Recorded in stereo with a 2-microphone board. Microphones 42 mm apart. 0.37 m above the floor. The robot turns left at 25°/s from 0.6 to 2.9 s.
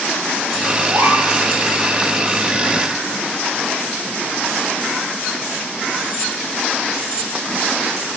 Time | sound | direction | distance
0.9 | a gasp | 60° right (ahead or behind) | 5 m